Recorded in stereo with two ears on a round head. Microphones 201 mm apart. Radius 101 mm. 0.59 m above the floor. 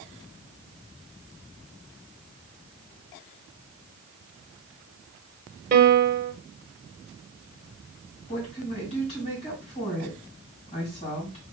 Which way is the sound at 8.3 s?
30° left (ahead or behind).